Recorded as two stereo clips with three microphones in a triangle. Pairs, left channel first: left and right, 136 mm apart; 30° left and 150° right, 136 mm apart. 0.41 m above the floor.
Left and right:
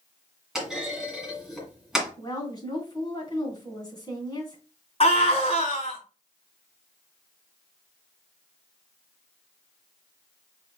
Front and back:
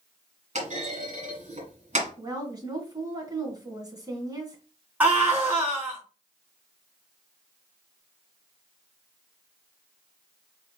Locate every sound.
0.6 s a clunk: 175° right, 2 m
2.2 s a woman speaking: 150° left, 3 m
5.0 s a scream: 130° left, 3.5 m